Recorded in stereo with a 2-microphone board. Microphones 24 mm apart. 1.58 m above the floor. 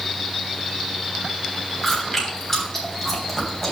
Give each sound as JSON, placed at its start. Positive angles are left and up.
{"t": 1.8, "sound": "chewing", "side_deg": 10, "distance_m": 3.5}